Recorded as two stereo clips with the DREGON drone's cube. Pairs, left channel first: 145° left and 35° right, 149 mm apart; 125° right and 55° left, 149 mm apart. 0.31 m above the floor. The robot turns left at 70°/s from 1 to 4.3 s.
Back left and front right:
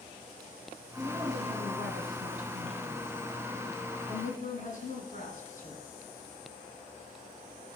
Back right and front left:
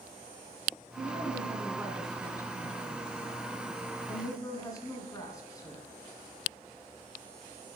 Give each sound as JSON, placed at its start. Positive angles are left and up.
{"t": 1.0, "sound": "a woman speaking", "azimuth_deg": 40, "distance_m": 3.0}